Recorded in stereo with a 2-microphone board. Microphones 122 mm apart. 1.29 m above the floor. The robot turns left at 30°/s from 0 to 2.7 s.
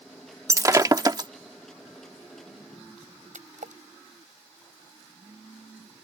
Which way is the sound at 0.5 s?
25° right (ahead or behind).